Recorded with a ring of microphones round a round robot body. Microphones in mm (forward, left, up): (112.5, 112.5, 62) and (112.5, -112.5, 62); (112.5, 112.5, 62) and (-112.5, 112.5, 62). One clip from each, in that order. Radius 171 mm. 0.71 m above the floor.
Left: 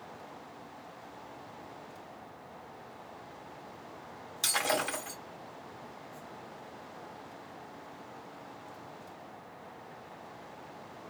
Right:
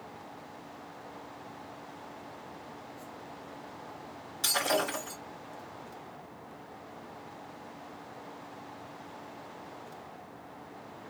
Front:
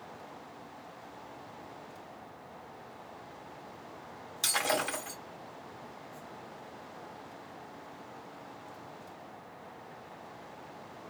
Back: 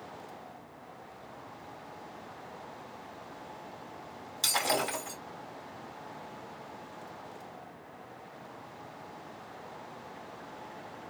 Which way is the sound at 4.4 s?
75° left.